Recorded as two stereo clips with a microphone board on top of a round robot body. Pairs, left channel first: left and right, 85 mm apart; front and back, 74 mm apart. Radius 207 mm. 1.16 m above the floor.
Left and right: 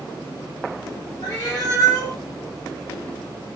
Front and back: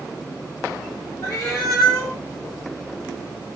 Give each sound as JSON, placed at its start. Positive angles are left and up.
{"t": 1.2, "sound": "a cat meowing", "azimuth_deg": 45, "distance_m": 0.6}